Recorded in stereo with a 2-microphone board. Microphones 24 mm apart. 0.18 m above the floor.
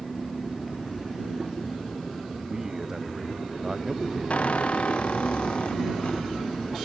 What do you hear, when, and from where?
2.5 s a man speaking: 20° right (ahead or behind)
4.3 s a squeak: 55° left (ahead or behind)